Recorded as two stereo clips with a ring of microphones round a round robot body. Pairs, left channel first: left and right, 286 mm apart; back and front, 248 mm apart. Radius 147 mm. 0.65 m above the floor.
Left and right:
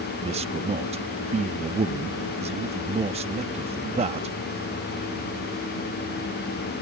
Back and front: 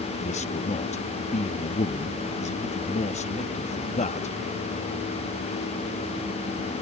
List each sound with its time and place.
0.2 s a man speaking: 140° right